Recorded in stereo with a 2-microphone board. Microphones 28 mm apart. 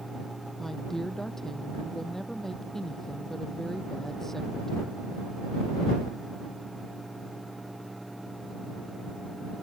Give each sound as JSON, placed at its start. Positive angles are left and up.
{"t": 0.6, "sound": "a woman speaking", "side_deg": 10}